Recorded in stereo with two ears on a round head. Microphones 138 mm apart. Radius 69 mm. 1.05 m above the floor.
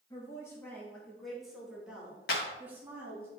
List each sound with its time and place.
0.1 s a woman speaking: 25° left (ahead or behind), 1.1 m; by 3.3 s 15° right (ahead or behind), 2.5 m
2.3 s a clap: 70° left (ahead or behind), 1.4 m